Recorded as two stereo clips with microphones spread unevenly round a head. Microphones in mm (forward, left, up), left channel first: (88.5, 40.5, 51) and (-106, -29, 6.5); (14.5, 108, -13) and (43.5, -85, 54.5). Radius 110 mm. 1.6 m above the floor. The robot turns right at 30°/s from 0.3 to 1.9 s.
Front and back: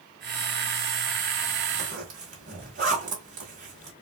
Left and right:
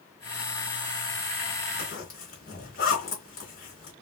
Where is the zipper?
145° left, 1.6 m; by 3.9 s 150° left, 1.6 m.